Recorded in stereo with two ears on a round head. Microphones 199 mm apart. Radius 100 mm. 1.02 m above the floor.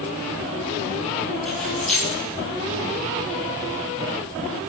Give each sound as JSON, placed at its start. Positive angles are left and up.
{"t": 1.4, "sound": "keys jangling", "side_deg": 5, "distance_m": 9.5}